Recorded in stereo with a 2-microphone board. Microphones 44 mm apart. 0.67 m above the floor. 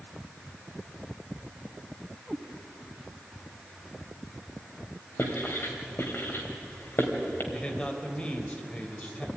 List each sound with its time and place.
2.3 s a cat meowing: centre (ahead or behind), 2.5 m
5.2 s writing: 55° left (ahead or behind), 3 m
7.5 s a man speaking: 25° left (ahead or behind), 3 m